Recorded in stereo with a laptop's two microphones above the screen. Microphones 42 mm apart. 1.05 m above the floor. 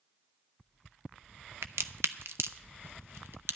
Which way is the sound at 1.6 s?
75° right (ahead or behind).